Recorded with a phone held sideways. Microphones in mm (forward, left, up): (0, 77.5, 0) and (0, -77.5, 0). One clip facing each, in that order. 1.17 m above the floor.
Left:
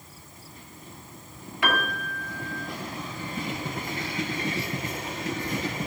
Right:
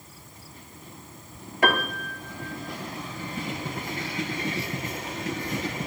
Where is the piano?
45° right (ahead or behind), 0.8 m.